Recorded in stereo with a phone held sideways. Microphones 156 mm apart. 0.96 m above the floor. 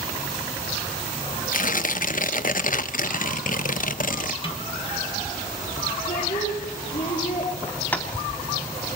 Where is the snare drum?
35° left (ahead or behind), 2 m.